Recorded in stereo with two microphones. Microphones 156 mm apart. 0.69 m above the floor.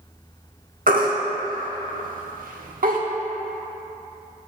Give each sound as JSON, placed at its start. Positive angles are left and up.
{"t": 0.9, "sound": "a baby crying", "side_deg": -75, "distance_m": 1.0}